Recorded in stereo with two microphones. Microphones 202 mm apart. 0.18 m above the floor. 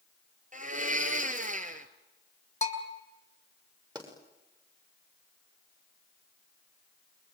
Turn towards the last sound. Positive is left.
turn(degrees=-20)  # may be behind; listen again after turning